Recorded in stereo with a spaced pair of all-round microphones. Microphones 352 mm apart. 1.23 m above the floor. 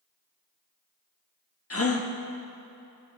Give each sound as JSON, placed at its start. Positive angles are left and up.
{"t": 1.7, "sound": "a gasp", "side_deg": 40, "distance_m": 0.9}